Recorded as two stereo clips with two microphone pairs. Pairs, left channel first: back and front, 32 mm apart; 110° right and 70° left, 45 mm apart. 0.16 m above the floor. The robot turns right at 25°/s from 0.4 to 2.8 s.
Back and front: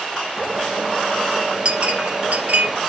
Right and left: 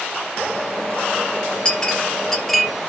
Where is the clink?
45° right, 2.5 m; by 2.7 s 20° right, 2.5 m.